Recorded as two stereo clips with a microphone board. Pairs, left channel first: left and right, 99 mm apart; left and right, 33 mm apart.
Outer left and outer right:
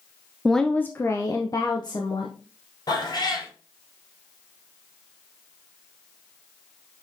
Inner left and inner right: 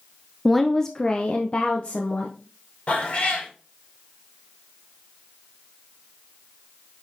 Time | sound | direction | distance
0.5 | a woman speaking | centre (ahead or behind) | 0.5 m
2.9 | a cat meowing | 45° left (ahead or behind) | 2.5 m